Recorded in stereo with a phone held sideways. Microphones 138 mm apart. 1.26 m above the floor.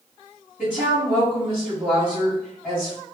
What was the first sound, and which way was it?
A woman speaking, 5° right (ahead or behind).